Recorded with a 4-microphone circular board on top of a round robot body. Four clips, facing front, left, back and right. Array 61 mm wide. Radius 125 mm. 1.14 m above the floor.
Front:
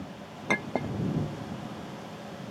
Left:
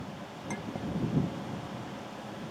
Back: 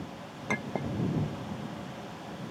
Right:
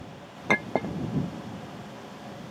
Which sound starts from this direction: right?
A clink, at 0.5 s.